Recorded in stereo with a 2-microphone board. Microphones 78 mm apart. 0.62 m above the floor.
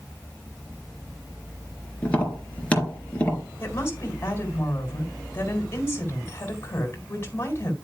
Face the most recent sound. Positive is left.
turn(degrees=30)  # may be behind; listen again after turning